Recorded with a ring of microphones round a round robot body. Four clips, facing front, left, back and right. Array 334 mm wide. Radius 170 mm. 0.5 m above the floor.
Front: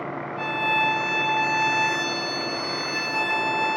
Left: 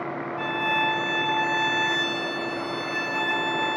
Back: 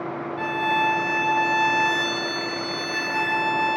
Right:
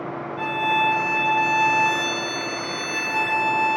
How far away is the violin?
About 1.9 m.